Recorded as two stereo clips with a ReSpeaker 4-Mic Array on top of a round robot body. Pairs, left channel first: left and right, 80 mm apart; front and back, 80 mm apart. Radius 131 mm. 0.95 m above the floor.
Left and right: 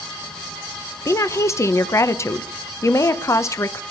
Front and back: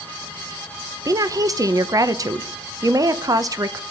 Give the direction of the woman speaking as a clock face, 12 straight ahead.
7 o'clock.